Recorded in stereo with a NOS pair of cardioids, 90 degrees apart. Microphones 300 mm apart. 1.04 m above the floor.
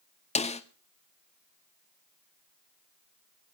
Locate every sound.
0.3 s a snare drum: 20° left, 1.8 m